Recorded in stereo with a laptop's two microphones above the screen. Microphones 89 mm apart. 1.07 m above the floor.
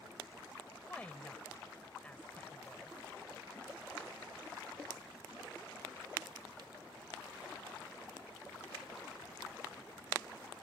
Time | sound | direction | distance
0.8 | a woman speaking | 15° left (ahead or behind) | ?